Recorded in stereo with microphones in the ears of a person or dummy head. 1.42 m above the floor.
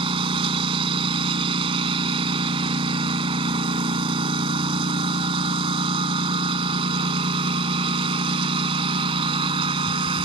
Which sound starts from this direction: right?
A lawn mower, at 0.0 s.